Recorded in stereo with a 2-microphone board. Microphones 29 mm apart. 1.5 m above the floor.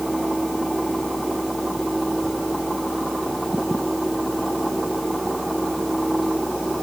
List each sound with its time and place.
Only background noise.